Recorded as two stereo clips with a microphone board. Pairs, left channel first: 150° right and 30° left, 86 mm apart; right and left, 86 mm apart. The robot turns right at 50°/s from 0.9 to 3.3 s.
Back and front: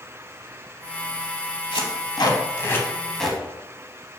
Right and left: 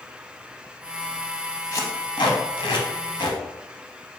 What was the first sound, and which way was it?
Tape being pulled, 140° right.